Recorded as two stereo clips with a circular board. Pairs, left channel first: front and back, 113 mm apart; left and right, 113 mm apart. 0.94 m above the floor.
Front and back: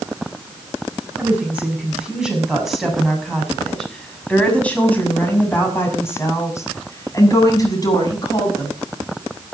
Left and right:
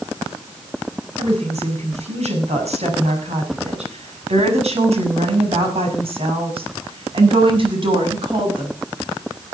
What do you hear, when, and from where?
1.2 s a woman speaking: 105° right, 7 m; by 8.7 s 50° right, 7.5 m